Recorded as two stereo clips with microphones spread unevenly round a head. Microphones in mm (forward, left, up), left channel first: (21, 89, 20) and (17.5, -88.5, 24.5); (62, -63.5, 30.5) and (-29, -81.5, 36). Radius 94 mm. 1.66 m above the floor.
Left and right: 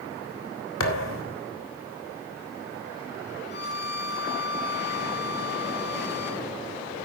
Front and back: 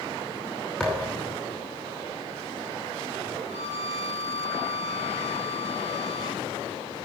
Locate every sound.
0.8 s a thud: 100° left, 2.5 m
3.5 s a violin: 145° left, 6.5 m